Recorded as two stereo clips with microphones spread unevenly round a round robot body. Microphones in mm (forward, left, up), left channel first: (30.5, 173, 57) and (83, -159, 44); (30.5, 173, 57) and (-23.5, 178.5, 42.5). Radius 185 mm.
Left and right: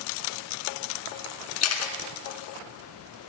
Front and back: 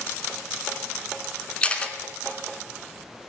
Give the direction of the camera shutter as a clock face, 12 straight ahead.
10 o'clock.